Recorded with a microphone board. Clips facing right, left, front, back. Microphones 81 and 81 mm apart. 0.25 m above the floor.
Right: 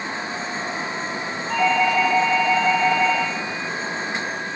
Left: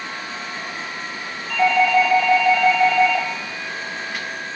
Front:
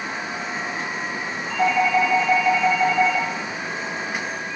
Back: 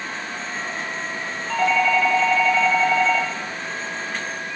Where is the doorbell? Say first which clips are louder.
Left 3 dB, even; 150° right, 7.5 m.